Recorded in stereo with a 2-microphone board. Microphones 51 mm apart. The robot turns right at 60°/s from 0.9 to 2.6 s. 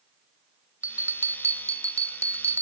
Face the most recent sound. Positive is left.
turn(degrees=-50)